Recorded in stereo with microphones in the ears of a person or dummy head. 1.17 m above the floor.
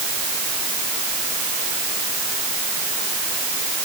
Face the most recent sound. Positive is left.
No sound to turn to.